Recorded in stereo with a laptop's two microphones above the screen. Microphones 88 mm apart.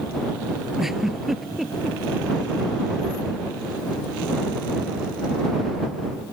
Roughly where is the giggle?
Centre.